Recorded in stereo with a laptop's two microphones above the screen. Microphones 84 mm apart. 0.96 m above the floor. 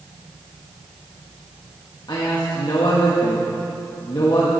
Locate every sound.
2.1 s a man speaking: 65° left (ahead or behind), 1.4 m